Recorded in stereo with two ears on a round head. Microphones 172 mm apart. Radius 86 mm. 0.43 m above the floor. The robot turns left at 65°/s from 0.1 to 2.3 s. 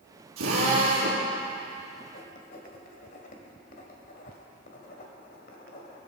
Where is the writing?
55° left (ahead or behind), 2.5 m; by 6.0 s 45° left (ahead or behind), 2.5 m.